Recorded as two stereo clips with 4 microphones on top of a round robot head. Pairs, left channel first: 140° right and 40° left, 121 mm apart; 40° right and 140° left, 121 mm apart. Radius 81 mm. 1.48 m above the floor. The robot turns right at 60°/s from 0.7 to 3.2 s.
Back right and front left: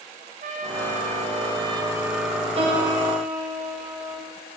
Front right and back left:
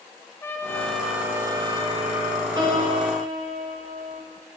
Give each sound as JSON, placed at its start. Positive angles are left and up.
{"t": 0.4, "sound": "a trumpet", "azimuth_deg": 30, "distance_m": 1.2}
{"t": 2.6, "sound": "a piano", "azimuth_deg": 80, "distance_m": 2.5}